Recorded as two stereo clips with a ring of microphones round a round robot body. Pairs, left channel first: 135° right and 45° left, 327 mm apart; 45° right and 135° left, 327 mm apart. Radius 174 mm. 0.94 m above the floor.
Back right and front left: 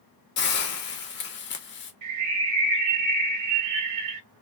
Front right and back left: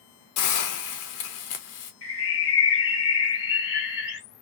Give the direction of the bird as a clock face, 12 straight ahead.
12 o'clock.